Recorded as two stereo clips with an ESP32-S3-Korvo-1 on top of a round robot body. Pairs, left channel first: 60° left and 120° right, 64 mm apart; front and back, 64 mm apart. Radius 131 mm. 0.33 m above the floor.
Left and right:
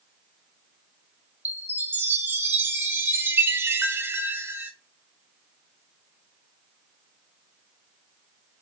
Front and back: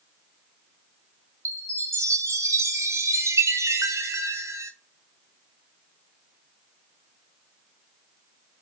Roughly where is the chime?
Behind.